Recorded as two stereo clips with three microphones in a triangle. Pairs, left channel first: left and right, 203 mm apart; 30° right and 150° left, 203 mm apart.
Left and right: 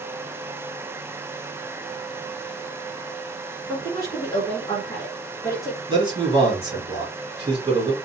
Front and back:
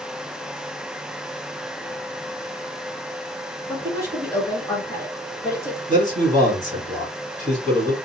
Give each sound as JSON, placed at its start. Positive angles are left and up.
{"t": 3.7, "sound": "a woman speaking", "azimuth_deg": 30, "distance_m": 1.8}
{"t": 5.9, "sound": "a man speaking", "azimuth_deg": -40, "distance_m": 2.0}